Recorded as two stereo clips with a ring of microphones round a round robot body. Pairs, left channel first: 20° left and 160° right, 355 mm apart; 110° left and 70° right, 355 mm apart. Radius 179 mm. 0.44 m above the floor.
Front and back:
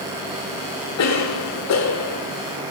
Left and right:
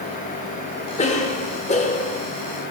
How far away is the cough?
About 1.2 m.